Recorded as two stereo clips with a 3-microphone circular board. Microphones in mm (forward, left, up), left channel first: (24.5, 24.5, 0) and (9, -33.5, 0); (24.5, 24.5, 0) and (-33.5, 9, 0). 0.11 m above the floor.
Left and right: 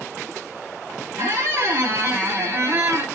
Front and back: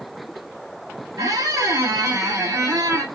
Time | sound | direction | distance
1.2 | a squeak | 150° right | 1.8 m